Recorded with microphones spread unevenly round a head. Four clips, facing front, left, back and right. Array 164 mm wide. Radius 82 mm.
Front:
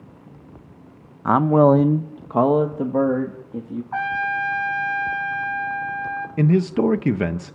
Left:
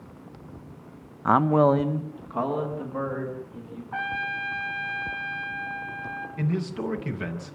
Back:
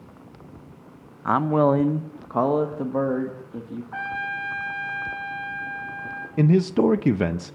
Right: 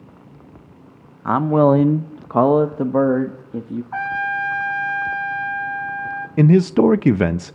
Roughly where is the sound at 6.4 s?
Right.